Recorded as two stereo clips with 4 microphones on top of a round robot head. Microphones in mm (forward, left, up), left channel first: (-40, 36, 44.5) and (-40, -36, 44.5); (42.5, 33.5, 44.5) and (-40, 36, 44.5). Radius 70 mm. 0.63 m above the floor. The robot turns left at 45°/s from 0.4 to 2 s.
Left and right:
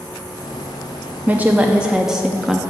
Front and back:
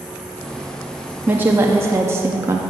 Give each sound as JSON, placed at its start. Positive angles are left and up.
{"t": 1.3, "sound": "a woman speaking", "azimuth_deg": -135, "distance_m": 0.6}